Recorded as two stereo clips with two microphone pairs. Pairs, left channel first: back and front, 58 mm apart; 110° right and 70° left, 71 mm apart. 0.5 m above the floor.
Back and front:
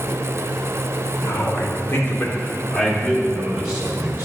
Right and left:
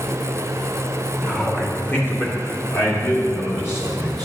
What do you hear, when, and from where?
1.2 s a man speaking: 175° right, 1.9 m; by 4.2 s 60° right, 2 m